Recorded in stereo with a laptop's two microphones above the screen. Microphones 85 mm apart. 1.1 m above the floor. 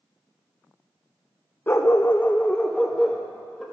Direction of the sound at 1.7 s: 25° left (ahead or behind).